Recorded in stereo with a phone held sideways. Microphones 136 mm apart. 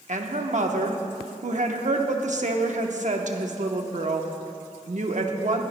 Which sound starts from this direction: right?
A woman speaking, at 0.1 s.